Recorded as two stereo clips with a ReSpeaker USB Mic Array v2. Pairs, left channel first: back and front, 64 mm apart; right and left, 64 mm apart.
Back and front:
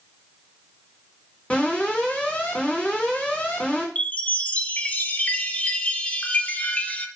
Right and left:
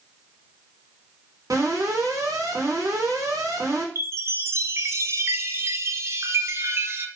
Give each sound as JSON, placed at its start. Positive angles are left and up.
{"t": 1.5, "sound": "an alarm", "azimuth_deg": 110, "distance_m": 3.0}
{"t": 4.0, "sound": "a chime", "azimuth_deg": 120, "distance_m": 0.7}